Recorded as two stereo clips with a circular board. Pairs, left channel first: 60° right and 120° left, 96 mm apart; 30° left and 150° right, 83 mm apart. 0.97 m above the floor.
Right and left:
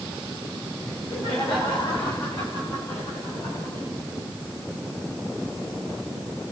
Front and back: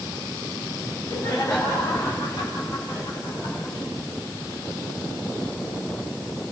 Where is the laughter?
30° right, 8.5 m; by 3.9 s 20° right, 11.5 m.